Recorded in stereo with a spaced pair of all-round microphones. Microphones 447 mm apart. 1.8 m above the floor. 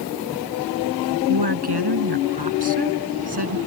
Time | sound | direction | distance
1.3 | a woman speaking | 60° right (ahead or behind) | ?